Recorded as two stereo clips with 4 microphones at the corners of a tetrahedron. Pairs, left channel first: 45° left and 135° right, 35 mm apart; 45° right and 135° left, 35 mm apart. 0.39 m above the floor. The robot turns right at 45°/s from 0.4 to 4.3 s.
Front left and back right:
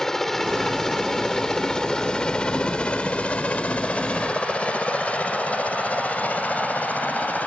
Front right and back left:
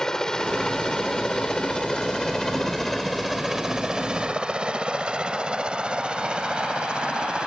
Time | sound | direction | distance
0.0 | a helicopter | 10° right | ?